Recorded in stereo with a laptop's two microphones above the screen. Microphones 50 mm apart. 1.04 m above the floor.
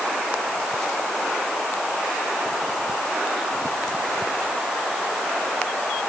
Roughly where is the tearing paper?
No tearing paper in this recording.